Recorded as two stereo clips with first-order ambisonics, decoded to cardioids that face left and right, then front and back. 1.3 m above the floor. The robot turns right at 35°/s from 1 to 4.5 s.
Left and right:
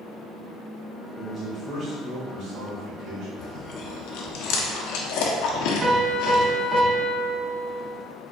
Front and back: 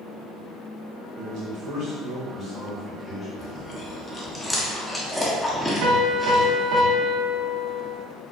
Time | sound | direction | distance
1.2 | a man speaking | 165° right | 1.9 m
3.4 | chewing | 45° left | 0.7 m
5.8 | a piano | 155° right | 0.8 m